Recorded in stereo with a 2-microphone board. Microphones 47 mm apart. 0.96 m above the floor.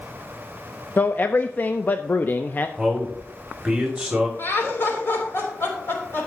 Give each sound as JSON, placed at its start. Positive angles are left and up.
{"t": 1.0, "sound": "a man speaking", "side_deg": 40, "distance_m": 0.5}
{"t": 2.8, "sound": "a man speaking", "side_deg": -5, "distance_m": 2.0}
{"t": 4.4, "sound": "laughter", "side_deg": 50, "distance_m": 3.0}